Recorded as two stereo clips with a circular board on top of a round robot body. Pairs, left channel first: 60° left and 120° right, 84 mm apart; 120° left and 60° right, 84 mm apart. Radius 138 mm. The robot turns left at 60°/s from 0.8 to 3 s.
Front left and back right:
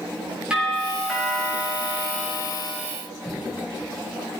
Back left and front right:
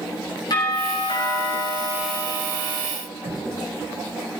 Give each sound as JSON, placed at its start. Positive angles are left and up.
{"t": 0.5, "sound": "a doorbell", "azimuth_deg": 160, "distance_m": 7.0}
{"t": 3.2, "sound": "knocking", "azimuth_deg": 0, "distance_m": 3.5}